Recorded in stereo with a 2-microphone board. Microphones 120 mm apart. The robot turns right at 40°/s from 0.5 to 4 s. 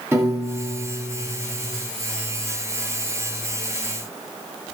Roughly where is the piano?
Behind.